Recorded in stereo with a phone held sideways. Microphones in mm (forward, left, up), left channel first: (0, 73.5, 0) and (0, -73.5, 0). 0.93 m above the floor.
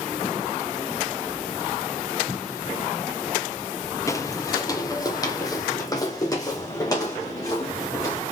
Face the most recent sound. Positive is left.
turn(degrees=25)  # may be behind; listen again after turning